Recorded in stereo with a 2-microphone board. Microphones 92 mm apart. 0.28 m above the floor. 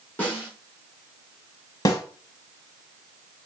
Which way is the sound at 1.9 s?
40° left (ahead or behind).